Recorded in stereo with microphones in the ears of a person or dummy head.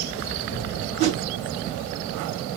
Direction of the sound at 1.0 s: 40° right (ahead or behind).